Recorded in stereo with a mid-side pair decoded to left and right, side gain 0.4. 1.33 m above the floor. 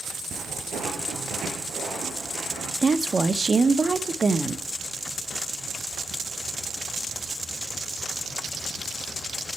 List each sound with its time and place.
0.3 s footsteps: 70° right, 4.5 m
2.8 s a woman speaking: 35° right, 1.0 m